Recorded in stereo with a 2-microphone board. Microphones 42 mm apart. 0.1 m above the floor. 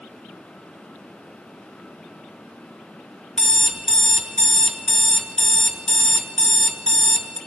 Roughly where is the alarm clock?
Centre.